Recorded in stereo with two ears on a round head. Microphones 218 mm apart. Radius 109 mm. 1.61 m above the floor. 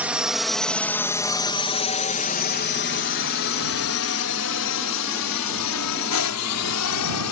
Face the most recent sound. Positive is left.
turn(degrees=75)  # may be behind; listen again after turning